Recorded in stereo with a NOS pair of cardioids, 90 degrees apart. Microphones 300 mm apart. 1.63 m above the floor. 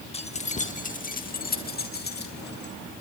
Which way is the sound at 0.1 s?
20° left.